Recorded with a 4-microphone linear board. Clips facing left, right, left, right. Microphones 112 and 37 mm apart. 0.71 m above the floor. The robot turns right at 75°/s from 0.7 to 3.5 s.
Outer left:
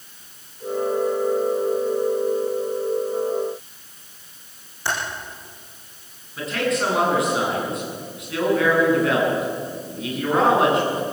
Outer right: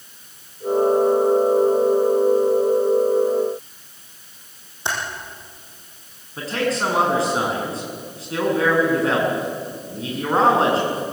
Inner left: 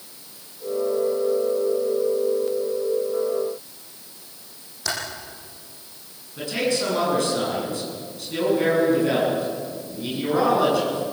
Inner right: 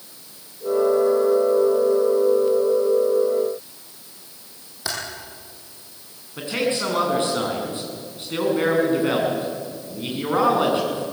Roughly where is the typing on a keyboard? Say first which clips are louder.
Even, inner left 1 dB; right.